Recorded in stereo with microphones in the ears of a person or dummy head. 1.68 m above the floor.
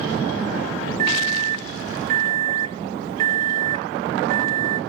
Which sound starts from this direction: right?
A microwave, at 1.0 s.